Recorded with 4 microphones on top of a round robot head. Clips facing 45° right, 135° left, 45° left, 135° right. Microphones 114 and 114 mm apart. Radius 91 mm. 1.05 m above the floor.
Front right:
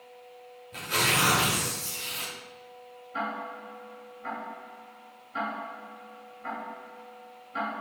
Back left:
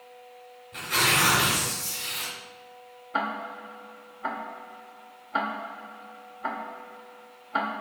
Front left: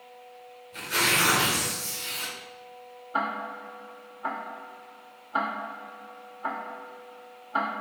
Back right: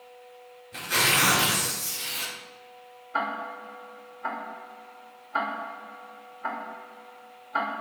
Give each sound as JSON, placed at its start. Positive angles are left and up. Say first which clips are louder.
{"t": 0.7, "sound": "tearing paper", "louder": "back left 2 dB, back right 1 dB", "azimuth_deg": -105, "distance_m": 1.9}
{"t": 3.1, "sound": "ticking", "louder": "back left 3 dB, even", "azimuth_deg": 130, "distance_m": 0.8}